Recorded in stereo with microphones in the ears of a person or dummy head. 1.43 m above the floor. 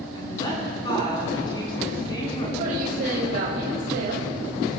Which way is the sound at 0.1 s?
25° left (ahead or behind).